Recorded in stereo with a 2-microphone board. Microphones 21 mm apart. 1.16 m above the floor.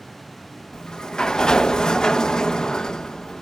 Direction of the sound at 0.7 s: 35° left (ahead or behind).